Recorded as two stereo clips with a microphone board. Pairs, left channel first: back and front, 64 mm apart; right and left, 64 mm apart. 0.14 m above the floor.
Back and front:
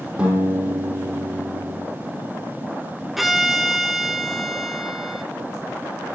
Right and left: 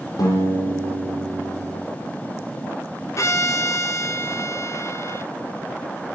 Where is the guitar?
70° right, 5 m.